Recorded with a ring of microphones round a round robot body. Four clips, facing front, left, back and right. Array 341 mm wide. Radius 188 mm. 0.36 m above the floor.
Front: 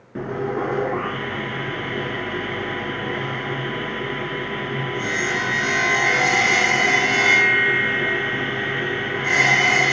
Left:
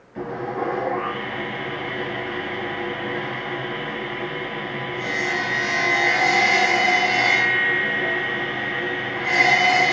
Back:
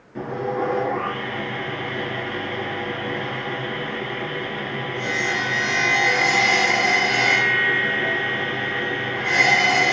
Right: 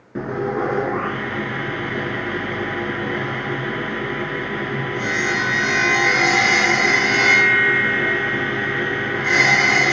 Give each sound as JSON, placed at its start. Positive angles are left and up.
{"t": 0.1, "sound": "sawing", "azimuth_deg": -65, "distance_m": 1.7}